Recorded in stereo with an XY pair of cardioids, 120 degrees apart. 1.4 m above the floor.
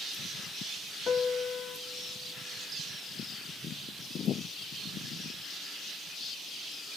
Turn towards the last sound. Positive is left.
turn(degrees=40)